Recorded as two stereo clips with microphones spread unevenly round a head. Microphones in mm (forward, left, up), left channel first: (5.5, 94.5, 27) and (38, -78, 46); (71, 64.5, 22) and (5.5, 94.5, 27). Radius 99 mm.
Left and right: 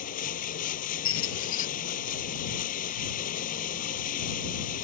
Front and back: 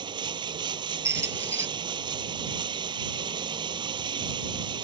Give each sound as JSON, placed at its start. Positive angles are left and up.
{"t": 0.0, "sound": "running water", "azimuth_deg": 150}
{"t": 1.1, "sound": "a squeak", "azimuth_deg": 105}